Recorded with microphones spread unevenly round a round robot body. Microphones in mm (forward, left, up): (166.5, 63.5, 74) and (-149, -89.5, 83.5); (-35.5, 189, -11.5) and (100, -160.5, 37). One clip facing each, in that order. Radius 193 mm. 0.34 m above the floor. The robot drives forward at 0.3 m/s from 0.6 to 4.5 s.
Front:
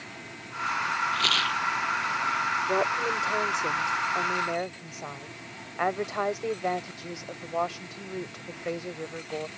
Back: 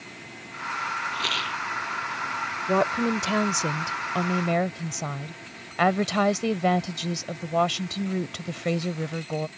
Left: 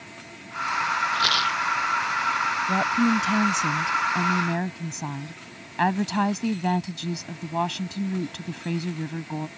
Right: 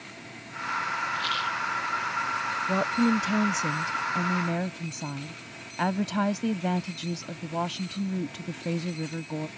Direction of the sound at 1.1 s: 100° left.